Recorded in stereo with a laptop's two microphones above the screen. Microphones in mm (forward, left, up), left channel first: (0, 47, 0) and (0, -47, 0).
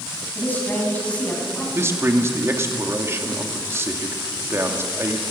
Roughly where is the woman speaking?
Centre.